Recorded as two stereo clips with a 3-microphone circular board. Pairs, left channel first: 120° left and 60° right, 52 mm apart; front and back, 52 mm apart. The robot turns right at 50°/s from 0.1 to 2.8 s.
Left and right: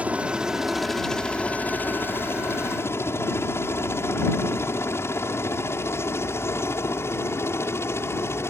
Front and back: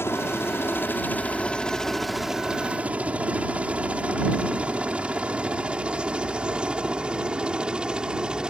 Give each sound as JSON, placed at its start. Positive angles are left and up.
{"t": 0.0, "sound": "a helicopter", "azimuth_deg": -5}